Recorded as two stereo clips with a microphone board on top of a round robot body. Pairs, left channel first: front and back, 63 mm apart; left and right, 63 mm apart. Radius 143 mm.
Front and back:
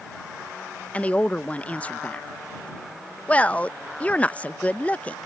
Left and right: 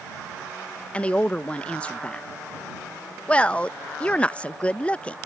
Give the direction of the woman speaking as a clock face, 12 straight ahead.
11 o'clock.